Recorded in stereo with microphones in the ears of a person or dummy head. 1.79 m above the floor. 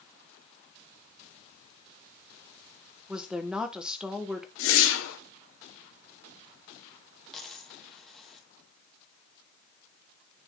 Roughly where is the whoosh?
Left.